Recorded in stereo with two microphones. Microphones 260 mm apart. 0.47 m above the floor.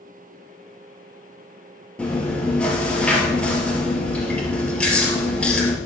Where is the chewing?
5° left (ahead or behind), 3 m.